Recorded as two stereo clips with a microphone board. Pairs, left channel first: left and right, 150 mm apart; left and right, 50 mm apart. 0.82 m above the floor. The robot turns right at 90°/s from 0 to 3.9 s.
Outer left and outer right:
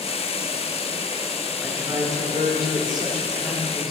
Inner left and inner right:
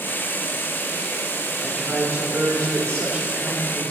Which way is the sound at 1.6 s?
175° right.